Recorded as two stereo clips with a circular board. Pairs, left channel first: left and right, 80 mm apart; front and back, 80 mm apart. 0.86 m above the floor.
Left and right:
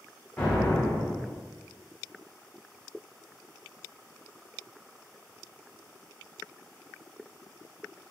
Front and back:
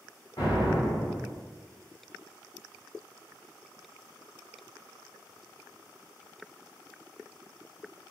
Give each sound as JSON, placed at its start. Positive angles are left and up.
{"t": 0.4, "sound": "an explosion", "azimuth_deg": 15, "distance_m": 1.3}